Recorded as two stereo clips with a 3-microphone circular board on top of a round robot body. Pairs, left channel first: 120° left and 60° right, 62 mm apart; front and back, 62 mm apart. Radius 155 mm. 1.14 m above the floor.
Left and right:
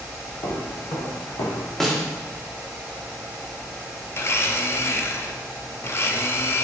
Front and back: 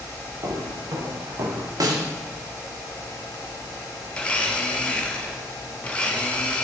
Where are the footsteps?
150° left, 5.5 m; by 1.7 s 140° left, 4.5 m.